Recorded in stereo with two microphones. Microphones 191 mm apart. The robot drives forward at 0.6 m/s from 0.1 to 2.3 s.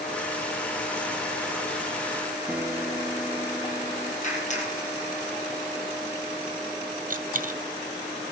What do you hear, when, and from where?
2.5 s a guitar: 5° right (ahead or behind), 2.0 m
4.2 s a clap: 40° left (ahead or behind), 6 m
7.1 s a dropped coin: 45° right (ahead or behind), 1.0 m